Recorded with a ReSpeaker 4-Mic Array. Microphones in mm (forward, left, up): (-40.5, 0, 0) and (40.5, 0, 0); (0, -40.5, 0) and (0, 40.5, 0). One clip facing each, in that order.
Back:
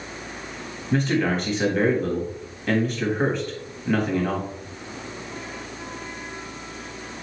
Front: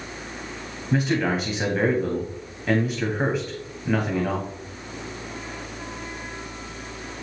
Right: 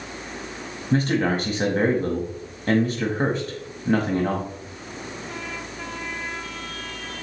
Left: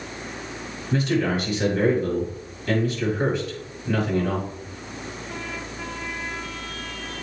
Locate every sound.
0.9 s a man speaking: 80° right, 1.3 m